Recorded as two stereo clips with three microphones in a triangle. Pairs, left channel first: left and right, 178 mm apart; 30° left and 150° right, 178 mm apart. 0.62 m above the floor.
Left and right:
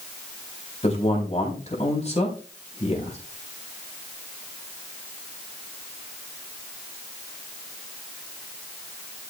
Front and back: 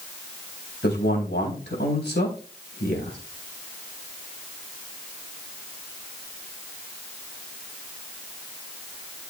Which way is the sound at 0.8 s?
40° left.